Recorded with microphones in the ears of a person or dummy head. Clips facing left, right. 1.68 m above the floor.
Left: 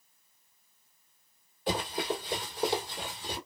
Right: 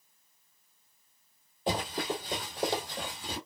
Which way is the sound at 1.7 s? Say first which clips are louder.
Even; 25° right (ahead or behind).